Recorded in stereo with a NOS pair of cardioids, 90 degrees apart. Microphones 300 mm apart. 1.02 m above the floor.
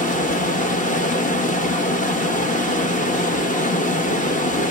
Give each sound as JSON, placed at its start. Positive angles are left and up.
{"t": 0.0, "sound": "running water", "azimuth_deg": 25, "distance_m": 0.9}